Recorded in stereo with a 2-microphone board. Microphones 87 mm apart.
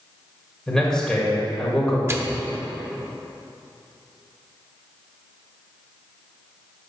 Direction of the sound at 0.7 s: 5° left (ahead or behind).